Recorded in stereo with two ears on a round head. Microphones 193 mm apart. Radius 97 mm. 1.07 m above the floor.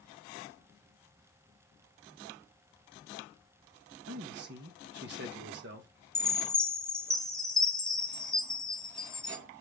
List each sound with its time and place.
4.1 s a man speaking: 55° right (ahead or behind), 1.3 m
6.2 s a chime: 5° left (ahead or behind), 0.9 m